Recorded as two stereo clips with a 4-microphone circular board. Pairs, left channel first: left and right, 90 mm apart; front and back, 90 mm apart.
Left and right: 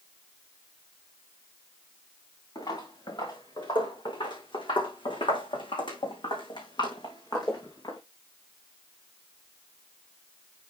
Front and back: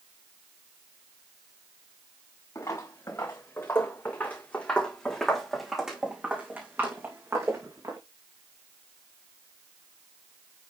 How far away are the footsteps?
About 4 m.